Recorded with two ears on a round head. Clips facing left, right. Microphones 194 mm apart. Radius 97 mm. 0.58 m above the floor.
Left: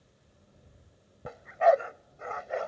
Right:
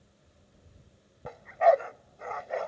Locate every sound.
1.2 s a dog barking: 5° left (ahead or behind)